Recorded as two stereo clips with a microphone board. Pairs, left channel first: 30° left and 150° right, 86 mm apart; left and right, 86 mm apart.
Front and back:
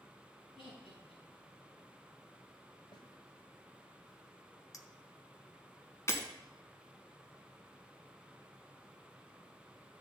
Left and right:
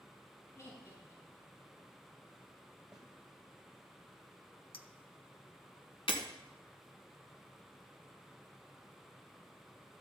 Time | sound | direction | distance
0.6 | laughter | 35° left | 5 m
2.9 | a snare drum | 10° right | 1.5 m
4.7 | a clink | 80° left | 0.8 m
6.1 | breaking glass | 90° left | 1.4 m